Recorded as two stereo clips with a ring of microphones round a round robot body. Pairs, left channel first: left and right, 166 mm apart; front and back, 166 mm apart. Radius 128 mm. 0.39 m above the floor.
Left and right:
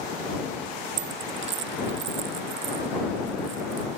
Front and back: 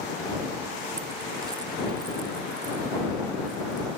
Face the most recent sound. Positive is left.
turn(degrees=-105)